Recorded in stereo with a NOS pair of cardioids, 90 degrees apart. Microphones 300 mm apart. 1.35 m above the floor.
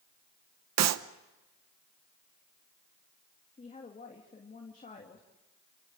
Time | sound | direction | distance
0.8 | a clap | 60° right | 0.8 m
3.6 | a woman speaking | 25° left | 2.5 m